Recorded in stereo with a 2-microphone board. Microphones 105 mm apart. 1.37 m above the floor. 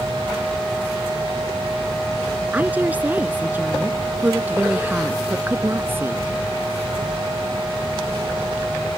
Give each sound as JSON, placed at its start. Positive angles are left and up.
{"t": 2.5, "sound": "a woman speaking", "side_deg": -15}